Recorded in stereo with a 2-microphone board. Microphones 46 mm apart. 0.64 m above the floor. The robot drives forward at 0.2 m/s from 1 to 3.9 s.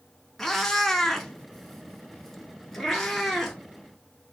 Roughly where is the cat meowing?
Centre.